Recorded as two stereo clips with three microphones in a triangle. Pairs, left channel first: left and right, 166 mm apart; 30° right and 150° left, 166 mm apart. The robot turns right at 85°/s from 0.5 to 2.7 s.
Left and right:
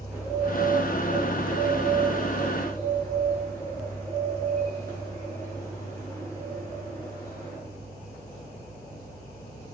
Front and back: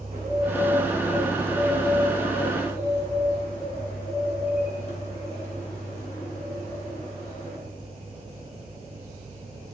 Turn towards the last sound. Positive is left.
turn(degrees=15)